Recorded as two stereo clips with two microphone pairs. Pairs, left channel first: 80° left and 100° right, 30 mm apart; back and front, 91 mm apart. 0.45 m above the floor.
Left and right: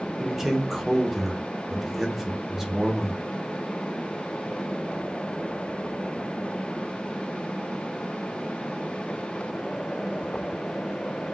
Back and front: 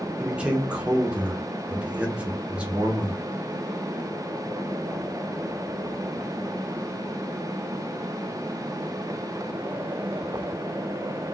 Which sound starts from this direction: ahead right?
A man speaking, at 0.2 s.